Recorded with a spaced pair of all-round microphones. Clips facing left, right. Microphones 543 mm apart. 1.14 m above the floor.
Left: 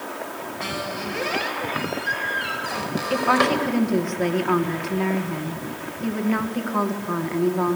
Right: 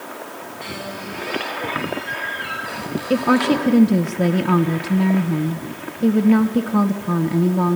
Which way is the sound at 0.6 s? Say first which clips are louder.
Left 1 dB; 90° left.